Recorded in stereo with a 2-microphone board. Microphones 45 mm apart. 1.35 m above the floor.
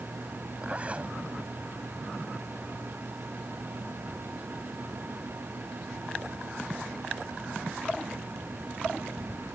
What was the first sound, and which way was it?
A zipper, 25° right (ahead or behind).